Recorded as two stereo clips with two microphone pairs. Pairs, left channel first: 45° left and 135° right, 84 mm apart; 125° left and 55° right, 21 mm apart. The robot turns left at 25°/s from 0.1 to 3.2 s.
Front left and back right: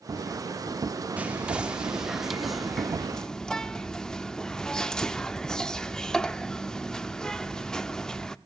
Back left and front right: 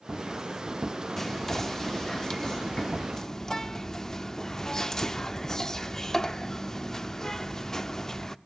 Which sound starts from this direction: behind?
Whispering, at 1.2 s.